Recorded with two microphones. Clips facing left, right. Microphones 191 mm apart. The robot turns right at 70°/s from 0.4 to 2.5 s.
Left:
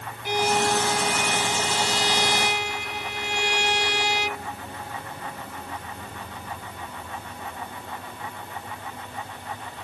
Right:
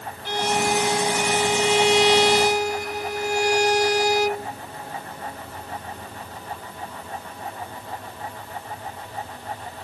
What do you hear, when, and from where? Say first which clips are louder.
0.2 s a violin: even; 170° left; by 4.5 s 45° right